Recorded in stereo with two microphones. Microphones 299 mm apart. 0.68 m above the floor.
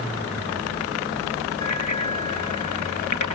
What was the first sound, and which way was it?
A bicycle bell, 80° left.